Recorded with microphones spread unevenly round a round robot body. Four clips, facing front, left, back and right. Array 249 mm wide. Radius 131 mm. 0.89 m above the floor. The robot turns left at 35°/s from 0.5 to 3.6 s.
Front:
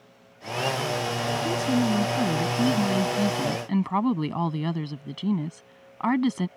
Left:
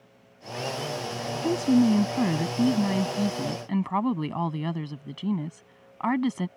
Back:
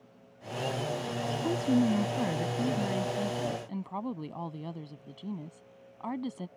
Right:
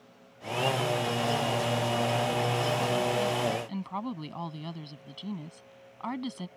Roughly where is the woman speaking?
Left.